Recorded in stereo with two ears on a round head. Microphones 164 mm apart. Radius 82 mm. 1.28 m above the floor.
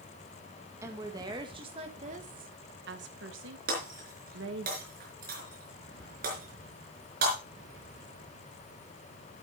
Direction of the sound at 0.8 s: 15° right (ahead or behind).